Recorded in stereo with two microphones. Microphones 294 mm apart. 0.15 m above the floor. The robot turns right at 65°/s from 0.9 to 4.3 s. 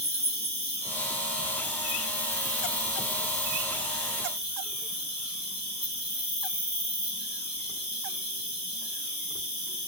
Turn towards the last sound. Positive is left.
turn(degrees=75)